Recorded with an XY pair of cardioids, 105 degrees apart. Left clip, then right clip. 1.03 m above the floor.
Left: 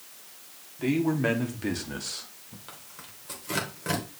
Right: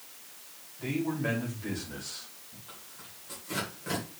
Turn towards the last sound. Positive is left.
turn(degrees=60)